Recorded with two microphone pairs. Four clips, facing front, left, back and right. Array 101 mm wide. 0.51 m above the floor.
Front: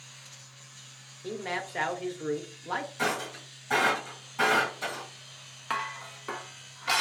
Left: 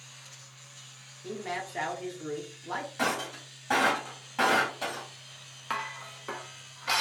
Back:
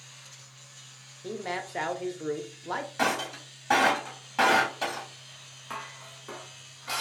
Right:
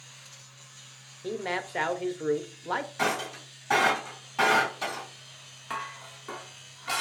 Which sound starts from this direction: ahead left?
Dishes clattering, at 5.7 s.